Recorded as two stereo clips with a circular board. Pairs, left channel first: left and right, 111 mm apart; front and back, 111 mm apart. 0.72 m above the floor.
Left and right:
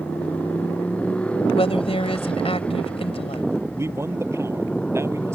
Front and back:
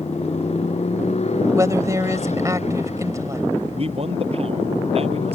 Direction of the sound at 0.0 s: 10° left.